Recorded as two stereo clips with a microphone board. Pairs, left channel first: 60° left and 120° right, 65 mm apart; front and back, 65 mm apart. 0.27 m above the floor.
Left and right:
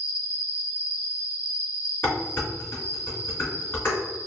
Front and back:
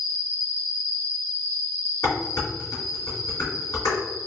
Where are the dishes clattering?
5° left, 1.8 m.